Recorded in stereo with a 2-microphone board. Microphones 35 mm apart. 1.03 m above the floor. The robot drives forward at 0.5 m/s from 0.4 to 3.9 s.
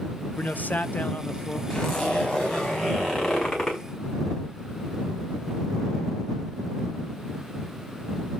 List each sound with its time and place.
0.4 s a man speaking: 60° left (ahead or behind), 0.8 m; by 1.6 s 40° left (ahead or behind), 1.2 m
1.7 s a zipper: 20° left (ahead or behind), 5 m; by 3.8 s 15° left (ahead or behind), 6 m